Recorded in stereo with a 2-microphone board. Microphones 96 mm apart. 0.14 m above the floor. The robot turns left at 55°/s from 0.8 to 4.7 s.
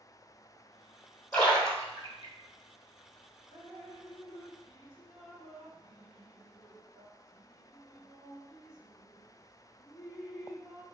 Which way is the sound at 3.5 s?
30° left (ahead or behind).